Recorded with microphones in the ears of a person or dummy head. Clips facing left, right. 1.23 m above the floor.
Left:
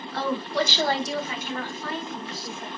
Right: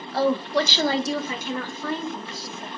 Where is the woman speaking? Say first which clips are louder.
Right 5 dB; 30° right (ahead or behind), 0.6 m; by 2.7 s 70° right (ahead or behind), 1.3 m.